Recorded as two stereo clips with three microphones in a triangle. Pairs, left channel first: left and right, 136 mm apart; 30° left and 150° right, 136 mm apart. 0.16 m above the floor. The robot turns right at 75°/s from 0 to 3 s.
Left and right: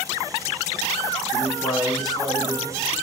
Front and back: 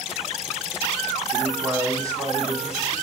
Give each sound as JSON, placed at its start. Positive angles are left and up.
{"t": 1.3, "sound": "a man speaking", "azimuth_deg": 120, "distance_m": 1.9}